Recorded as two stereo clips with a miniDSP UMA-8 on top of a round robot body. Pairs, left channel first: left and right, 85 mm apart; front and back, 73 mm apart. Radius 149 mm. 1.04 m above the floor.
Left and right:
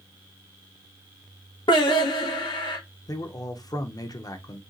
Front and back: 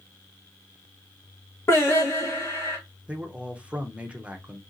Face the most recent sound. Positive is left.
turn(degrees=110)